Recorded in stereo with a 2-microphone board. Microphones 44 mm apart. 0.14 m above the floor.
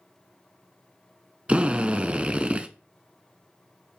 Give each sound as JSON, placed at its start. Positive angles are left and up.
{"t": 1.5, "sound": "a drill", "side_deg": -30, "distance_m": 0.7}